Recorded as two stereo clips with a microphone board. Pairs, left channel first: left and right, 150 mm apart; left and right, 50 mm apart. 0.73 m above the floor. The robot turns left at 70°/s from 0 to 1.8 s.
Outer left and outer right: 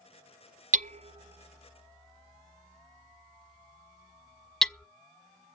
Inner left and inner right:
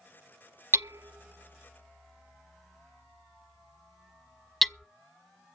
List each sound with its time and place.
0.7 s hammering: 55° right (ahead or behind), 0.5 m; by 4.9 s 5° left (ahead or behind), 0.5 m